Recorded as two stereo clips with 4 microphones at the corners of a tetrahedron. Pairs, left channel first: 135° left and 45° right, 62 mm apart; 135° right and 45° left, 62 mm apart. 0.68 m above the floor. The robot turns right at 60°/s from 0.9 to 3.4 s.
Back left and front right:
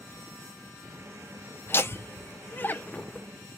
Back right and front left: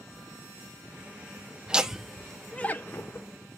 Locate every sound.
1.7 s laughter: 110° left, 0.6 m; by 3.3 s 155° right, 0.6 m